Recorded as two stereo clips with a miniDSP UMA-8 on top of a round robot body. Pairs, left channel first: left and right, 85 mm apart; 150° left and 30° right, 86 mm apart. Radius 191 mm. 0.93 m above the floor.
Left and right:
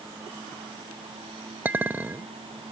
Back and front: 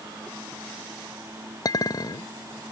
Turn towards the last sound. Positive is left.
turn(degrees=-160)